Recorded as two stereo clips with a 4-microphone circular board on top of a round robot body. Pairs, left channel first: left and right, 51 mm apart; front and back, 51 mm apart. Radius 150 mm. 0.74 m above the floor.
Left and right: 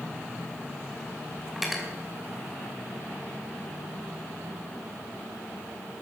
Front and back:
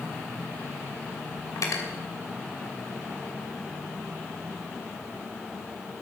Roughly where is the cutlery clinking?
Ahead.